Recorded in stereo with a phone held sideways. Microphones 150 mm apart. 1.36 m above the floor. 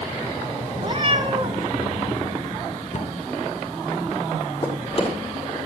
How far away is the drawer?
About 8 m.